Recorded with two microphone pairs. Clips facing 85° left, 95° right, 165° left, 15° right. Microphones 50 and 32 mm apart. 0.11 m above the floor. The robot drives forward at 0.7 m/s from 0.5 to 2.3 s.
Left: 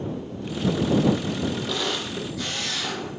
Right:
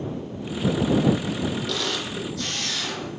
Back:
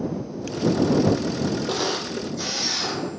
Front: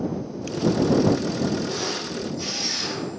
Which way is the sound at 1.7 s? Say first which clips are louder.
Even, back 3 dB; 160° left.